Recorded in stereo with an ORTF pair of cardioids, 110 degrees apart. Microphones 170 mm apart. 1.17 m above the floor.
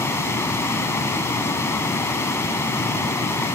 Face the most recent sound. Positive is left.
turn(degrees=15)